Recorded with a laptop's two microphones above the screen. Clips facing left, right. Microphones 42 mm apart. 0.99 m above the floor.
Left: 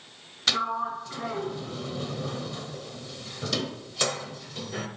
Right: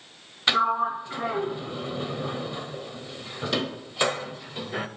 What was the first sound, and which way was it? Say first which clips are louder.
A sliding door: right 5 dB; 20° right (ahead or behind).